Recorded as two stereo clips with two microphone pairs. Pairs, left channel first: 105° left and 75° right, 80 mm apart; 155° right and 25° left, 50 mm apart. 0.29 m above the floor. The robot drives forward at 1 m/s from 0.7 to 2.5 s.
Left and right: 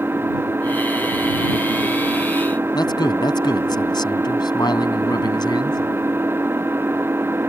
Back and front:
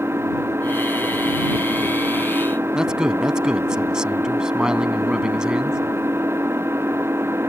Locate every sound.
0.0 s an engine running: 10° right
2.7 s a man speaking: 100° left